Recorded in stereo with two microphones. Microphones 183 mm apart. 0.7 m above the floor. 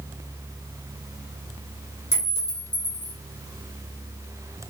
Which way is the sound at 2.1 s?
70° left (ahead or behind).